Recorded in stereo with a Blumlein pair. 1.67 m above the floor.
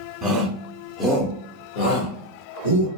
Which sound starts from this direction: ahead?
A shout, at 0.2 s.